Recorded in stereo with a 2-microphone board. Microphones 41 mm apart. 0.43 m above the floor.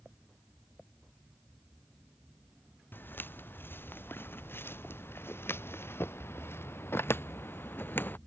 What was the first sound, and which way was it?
Footsteps, 60° left (ahead or behind).